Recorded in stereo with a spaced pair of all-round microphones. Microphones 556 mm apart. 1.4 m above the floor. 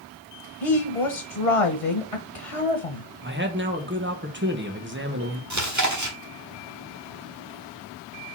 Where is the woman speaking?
75° left (ahead or behind), 1.3 m.